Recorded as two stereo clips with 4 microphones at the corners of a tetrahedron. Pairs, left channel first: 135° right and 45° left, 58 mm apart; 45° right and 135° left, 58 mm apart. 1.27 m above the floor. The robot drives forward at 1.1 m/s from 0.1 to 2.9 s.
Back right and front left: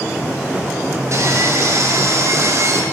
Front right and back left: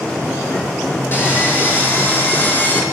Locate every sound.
1.1 s sawing: 10° left, 7 m; by 2.8 s 15° left, 5 m